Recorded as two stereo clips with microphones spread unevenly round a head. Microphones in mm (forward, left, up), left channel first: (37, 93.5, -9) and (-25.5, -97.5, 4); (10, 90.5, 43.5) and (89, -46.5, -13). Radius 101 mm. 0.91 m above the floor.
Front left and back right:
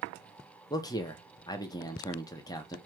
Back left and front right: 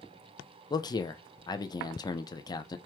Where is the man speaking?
45° left, 0.6 m.